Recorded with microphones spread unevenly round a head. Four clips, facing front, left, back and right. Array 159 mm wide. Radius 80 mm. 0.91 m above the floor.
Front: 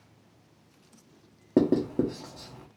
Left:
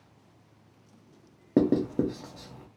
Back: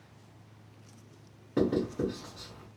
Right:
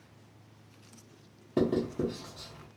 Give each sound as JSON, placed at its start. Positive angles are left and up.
{"t": 1.6, "sound": "writing", "azimuth_deg": 45, "distance_m": 0.8}